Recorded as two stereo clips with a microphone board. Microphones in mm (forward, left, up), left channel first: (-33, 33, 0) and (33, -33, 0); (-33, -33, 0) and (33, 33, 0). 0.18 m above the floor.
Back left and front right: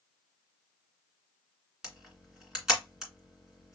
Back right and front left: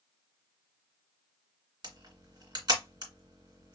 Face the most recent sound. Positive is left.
turn(degrees=35)